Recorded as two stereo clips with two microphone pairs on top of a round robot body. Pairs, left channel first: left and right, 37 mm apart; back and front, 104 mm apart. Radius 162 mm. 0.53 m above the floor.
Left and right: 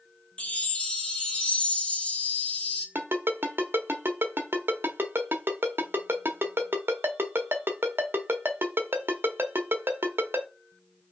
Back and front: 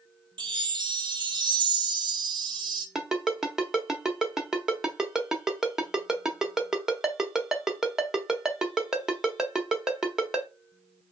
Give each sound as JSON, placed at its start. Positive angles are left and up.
{"t": 0.4, "sound": "a chime", "azimuth_deg": 40, "distance_m": 1.1}
{"t": 3.0, "sound": "a ringtone", "azimuth_deg": -85, "distance_m": 1.0}